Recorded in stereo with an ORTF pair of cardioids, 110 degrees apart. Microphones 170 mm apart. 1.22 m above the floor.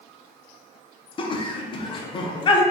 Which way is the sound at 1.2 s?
30° left.